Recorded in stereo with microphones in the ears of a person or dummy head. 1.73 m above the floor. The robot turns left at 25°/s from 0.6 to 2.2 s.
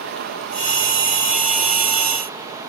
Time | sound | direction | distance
0.0 | running water | 115° right | 0.8 m